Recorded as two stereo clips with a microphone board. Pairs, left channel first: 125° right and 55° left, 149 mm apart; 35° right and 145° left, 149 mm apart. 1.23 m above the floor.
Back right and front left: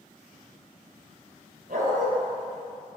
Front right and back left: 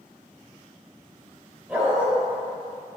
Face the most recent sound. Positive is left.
turn(degrees=65)